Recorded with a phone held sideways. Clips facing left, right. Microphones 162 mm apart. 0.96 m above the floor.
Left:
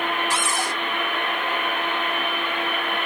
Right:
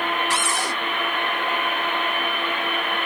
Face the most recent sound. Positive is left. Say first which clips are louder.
# even
turn(degrees=-70)  # may be behind; listen again after turning